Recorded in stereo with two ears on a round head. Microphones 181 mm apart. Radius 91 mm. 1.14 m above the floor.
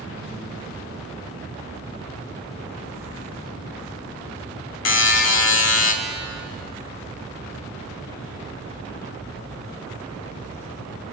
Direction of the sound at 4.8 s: 65° left (ahead or behind).